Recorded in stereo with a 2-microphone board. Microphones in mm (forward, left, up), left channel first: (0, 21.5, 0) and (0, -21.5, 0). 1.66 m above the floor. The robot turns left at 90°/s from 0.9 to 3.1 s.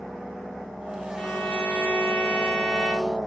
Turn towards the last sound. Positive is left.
turn(degrees=-20)